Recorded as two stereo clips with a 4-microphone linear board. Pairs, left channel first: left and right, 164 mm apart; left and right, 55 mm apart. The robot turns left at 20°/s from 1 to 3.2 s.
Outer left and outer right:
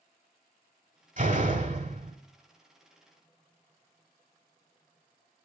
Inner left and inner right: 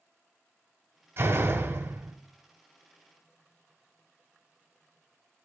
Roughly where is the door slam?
Right.